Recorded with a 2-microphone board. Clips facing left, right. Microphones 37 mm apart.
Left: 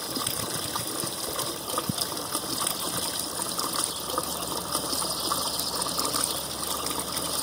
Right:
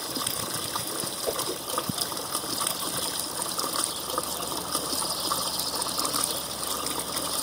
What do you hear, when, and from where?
1.3 s a whoosh: 45° right (ahead or behind), 0.6 m